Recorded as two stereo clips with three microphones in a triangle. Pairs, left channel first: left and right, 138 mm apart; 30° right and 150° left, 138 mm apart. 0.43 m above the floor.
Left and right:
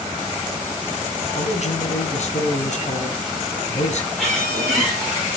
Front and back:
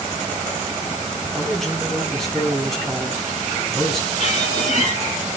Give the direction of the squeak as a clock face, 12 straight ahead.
12 o'clock.